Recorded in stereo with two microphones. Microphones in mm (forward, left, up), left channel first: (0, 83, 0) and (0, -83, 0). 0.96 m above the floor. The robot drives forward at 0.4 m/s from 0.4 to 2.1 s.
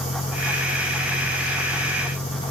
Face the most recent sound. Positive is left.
turn(degrees=70)  # may be behind; listen again after turning